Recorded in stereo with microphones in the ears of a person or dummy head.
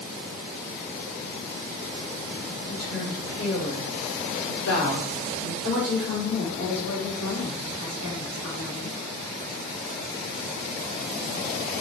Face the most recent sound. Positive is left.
turn(degrees=70)  # may be behind; listen again after turning